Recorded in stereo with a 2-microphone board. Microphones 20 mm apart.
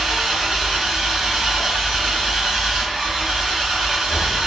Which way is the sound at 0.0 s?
20° right (ahead or behind).